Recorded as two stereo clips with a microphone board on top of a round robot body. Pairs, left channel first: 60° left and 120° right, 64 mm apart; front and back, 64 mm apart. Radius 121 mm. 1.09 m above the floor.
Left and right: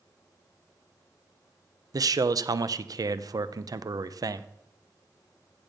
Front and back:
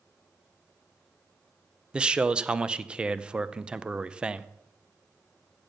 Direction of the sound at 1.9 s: 105° right.